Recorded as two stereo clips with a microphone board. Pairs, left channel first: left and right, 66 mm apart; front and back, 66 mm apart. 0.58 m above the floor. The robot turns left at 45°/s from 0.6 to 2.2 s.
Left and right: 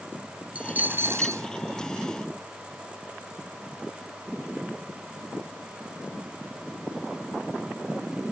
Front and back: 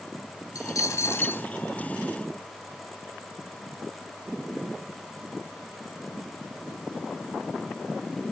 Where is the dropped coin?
20° right; by 1.5 s 60° right.